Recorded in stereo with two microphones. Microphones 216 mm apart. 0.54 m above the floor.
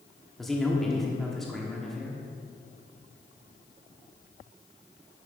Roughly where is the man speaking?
Centre.